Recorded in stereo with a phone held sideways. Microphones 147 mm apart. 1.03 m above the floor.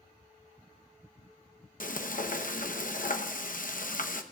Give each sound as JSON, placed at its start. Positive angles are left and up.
{"t": 1.8, "sound": "frying", "side_deg": 70, "distance_m": 0.8}